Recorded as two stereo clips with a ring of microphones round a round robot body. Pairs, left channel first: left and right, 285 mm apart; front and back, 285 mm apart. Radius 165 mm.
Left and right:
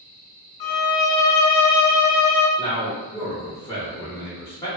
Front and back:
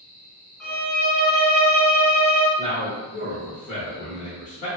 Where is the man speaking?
20° left, 1.1 m.